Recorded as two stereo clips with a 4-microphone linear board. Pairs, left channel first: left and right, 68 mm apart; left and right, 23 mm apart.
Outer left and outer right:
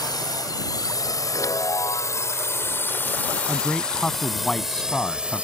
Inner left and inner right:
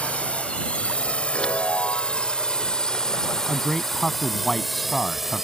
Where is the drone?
70° left (ahead or behind); by 5.5 s 20° right (ahead or behind).